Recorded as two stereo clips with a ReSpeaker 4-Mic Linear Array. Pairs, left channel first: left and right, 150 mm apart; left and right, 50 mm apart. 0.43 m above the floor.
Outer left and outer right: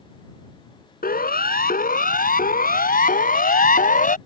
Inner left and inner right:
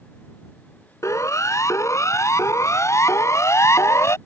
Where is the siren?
80° left; by 4.2 s 70° left (ahead or behind).